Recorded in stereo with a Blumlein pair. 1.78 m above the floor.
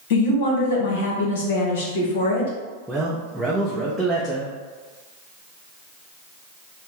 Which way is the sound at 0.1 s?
55° left.